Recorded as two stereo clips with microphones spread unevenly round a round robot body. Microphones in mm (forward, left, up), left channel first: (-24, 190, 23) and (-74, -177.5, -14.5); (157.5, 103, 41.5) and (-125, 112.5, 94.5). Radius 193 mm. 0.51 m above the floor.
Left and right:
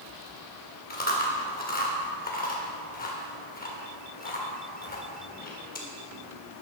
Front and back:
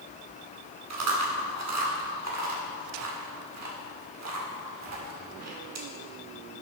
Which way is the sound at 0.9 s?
150° left.